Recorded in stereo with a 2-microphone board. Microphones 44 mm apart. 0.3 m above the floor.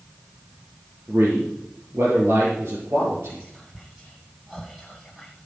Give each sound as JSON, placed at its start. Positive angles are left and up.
{"t": 1.1, "sound": "a man speaking", "side_deg": -60, "distance_m": 6.0}
{"t": 3.3, "sound": "whispering", "side_deg": -5, "distance_m": 1.8}